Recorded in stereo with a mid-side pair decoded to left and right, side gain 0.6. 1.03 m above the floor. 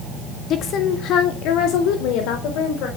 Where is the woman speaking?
50° left, 1.5 m; by 2.9 s 70° left, 4.5 m.